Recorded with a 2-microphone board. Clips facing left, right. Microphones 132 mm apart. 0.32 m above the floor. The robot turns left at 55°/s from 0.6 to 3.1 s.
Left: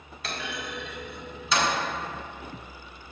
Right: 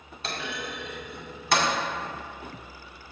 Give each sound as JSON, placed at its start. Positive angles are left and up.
{"t": 0.2, "sound": "a clunk", "side_deg": -30, "distance_m": 1.9}